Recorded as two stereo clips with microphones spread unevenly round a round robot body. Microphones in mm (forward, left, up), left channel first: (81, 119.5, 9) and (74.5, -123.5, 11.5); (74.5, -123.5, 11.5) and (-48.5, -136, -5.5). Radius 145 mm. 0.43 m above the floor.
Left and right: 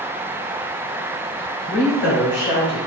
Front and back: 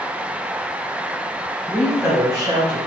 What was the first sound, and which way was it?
A woman speaking, 85° left.